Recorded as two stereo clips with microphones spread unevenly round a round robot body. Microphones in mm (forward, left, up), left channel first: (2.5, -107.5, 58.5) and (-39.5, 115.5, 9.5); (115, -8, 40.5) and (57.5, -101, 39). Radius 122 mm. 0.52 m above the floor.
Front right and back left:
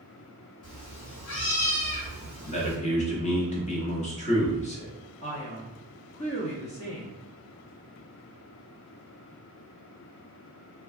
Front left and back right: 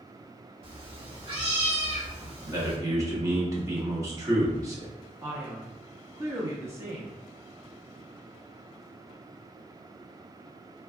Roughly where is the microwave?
No microwave in this recording.